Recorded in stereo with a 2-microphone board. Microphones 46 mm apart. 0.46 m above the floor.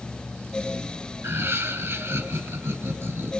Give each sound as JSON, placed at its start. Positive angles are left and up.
{"t": 1.2, "sound": "laughter", "side_deg": -60, "distance_m": 2.0}